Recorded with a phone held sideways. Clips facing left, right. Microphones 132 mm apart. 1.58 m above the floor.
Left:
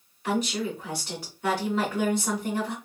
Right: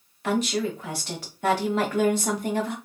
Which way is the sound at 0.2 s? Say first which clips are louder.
Right 3 dB; 75° right (ahead or behind).